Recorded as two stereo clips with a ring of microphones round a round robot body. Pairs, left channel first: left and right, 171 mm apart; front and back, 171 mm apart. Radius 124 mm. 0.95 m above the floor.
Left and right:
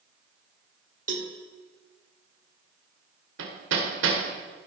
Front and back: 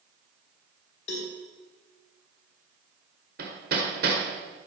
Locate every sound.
1.1 s a cowbell: 50° right, 1.9 m
3.4 s hammering: 125° right, 1.8 m